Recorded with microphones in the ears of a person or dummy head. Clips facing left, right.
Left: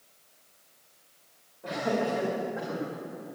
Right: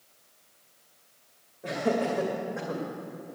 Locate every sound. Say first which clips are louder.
1.6 s laughter: right 1 dB; 25° right (ahead or behind), 2.5 m; by 2.8 s 45° right (ahead or behind), 1.6 m